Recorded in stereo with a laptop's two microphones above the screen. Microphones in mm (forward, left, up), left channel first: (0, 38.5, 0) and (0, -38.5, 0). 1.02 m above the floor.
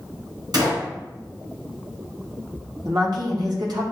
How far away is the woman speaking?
About 1.2 m.